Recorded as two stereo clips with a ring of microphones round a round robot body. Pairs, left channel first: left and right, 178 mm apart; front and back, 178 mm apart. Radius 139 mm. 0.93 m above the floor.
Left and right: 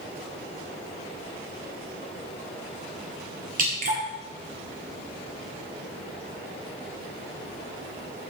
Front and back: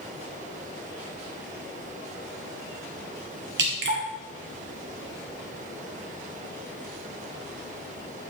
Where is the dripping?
145° right, 1.6 m.